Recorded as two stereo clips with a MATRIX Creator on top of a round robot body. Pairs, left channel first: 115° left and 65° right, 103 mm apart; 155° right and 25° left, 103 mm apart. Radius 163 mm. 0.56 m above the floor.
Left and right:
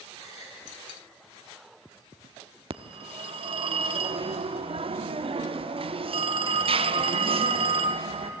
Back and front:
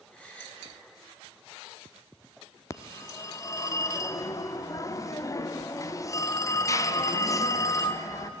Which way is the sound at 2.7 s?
100° right.